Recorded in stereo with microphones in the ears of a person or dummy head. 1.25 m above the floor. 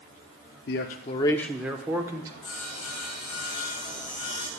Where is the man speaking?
55° left (ahead or behind), 0.9 m; by 2.3 s 20° right (ahead or behind), 1.5 m.